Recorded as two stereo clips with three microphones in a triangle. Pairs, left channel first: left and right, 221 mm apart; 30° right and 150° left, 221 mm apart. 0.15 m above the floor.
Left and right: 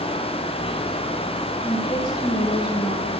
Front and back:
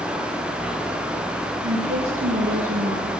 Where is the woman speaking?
160° left, 4 m.